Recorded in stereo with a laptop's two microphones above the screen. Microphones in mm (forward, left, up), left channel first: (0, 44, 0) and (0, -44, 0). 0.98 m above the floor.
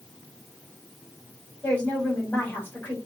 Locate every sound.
1.6 s a woman speaking: 20° left (ahead or behind), 4 m